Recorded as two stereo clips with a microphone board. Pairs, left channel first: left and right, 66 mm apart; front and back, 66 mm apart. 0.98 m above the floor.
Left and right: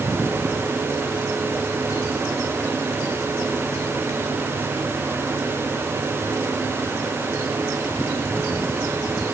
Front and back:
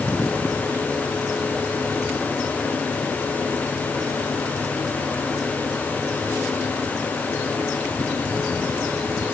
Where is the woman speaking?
No woman speaking in this recording.